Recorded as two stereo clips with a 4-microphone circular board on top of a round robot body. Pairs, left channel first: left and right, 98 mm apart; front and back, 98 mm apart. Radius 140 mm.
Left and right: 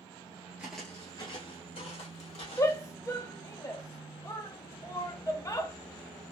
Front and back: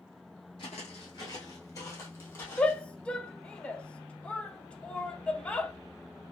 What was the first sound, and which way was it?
Footsteps, 25° right.